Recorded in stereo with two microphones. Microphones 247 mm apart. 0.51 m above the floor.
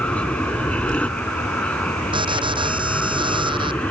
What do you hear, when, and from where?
0.0 s an aircraft: 5° left (ahead or behind)
2.1 s an alarm: 20° right (ahead or behind)